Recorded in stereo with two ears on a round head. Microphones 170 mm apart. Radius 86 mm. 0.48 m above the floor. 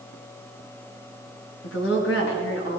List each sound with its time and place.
1.6 s a woman speaking: 65° left (ahead or behind), 4.5 m; by 2.8 s 60° left (ahead or behind), 6 m